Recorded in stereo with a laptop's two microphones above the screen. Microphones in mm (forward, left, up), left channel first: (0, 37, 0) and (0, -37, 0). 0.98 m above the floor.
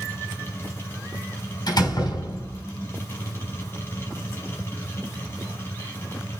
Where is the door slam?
70° left (ahead or behind), 4.5 m.